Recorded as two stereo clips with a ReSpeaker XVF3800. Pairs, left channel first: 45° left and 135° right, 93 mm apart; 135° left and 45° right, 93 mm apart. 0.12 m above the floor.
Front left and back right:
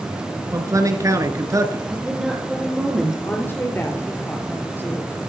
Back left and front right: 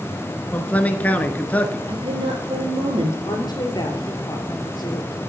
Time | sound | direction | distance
0.5 | a man speaking | 160° right | 1.4 m
1.9 | a woman speaking | 50° right | 3 m
3.2 | a woman speaking | 110° left | 2.5 m